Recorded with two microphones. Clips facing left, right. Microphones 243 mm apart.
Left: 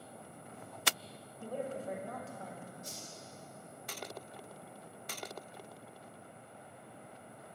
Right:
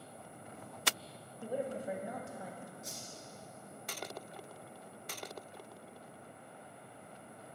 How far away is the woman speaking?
About 0.9 m.